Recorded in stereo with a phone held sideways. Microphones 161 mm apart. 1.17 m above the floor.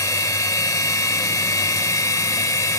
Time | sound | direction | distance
0.0 | a machine running | 20° left (ahead or behind) | 0.9 m